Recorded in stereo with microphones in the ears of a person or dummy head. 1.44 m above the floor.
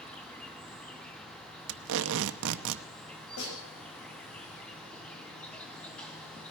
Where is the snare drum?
70° left (ahead or behind), 5.5 m.